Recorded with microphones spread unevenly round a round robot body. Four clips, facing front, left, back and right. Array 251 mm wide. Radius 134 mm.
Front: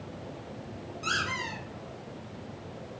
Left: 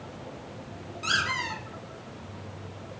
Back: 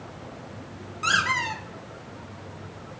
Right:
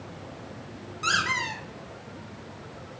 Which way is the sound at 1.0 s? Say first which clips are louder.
Right 2 dB, back 8 dB; 165° right.